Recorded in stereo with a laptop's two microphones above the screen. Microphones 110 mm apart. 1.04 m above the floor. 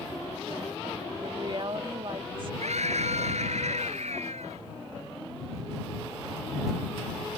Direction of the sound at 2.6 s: 80° right.